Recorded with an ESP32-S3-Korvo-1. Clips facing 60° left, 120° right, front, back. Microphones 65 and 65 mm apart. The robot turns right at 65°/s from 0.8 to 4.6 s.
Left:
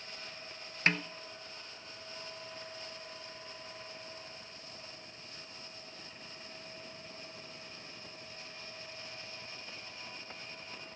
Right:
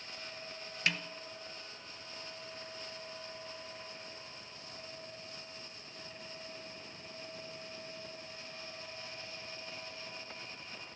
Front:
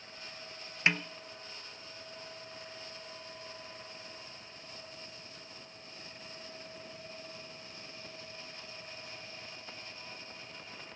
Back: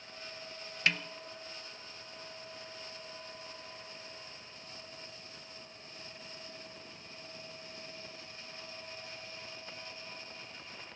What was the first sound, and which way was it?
A snare drum, 50° left.